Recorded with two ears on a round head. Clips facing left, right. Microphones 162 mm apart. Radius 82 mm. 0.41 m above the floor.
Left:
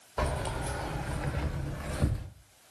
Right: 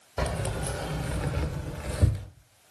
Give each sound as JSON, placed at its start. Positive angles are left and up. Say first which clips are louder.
{"t": 0.2, "sound": "keys jangling", "louder": "right 2 dB", "side_deg": -20, "distance_m": 0.6}